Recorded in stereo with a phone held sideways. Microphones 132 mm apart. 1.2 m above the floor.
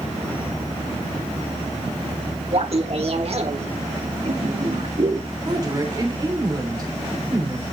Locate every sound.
2.5 s laughter: 55° right (ahead or behind), 2 m
5.5 s a woman speaking: 35° right (ahead or behind), 3 m